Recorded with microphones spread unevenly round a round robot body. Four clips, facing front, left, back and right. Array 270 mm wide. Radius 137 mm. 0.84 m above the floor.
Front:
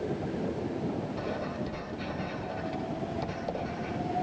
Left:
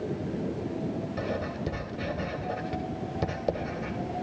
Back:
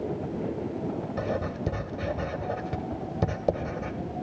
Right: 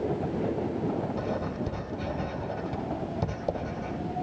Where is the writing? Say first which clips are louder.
Right 1 dB, back 4 dB; 175° left, 2 m.